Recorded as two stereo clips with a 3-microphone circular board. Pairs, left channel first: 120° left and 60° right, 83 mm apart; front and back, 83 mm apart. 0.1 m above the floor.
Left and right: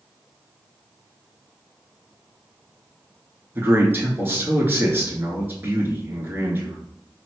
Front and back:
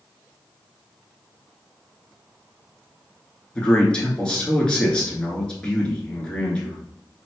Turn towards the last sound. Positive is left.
turn(degrees=-65)